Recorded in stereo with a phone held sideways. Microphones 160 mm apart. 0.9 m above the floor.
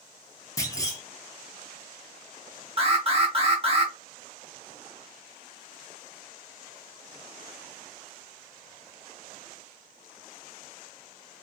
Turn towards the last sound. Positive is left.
turn(degrees=-35)  # may be behind; listen again after turning